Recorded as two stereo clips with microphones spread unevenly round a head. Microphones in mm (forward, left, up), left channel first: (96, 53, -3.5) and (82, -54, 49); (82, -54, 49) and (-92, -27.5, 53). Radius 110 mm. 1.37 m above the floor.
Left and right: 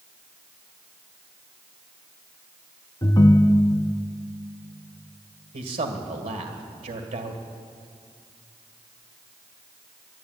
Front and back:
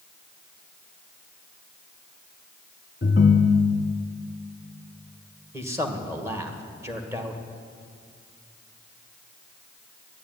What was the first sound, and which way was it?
A ringtone, 15° left.